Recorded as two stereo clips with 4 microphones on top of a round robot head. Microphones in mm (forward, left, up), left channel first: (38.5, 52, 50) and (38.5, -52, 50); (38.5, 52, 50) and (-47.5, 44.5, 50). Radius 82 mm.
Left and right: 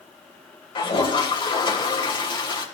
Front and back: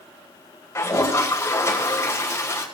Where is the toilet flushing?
60° left, 3 m.